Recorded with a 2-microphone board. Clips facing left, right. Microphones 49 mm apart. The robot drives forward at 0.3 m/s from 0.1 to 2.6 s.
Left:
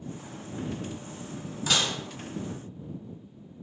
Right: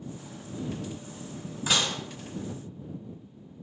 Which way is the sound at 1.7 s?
15° right (ahead or behind).